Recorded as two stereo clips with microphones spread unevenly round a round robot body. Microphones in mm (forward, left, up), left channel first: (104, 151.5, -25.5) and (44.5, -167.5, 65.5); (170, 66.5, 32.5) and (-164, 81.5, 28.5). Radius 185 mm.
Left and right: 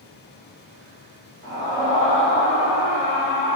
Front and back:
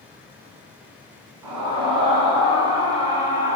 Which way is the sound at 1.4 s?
155° left.